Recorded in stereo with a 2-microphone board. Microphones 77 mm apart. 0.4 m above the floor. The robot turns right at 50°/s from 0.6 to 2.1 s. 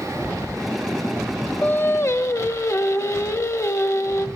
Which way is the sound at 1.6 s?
20° left (ahead or behind).